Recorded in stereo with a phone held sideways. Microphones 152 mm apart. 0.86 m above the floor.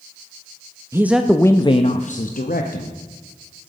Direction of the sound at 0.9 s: 20° right (ahead or behind).